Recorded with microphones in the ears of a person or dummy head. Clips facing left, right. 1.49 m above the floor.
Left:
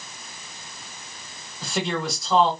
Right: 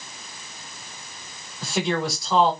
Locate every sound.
1.6 s a man speaking: 5° left (ahead or behind), 2.0 m